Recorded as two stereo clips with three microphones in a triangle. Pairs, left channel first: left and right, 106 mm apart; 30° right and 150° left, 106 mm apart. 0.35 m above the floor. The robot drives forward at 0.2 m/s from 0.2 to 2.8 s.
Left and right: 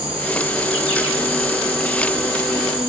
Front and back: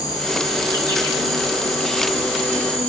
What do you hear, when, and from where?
0.0 s an insect: 75° right, 1.2 m; by 2.9 s 105° right, 1.2 m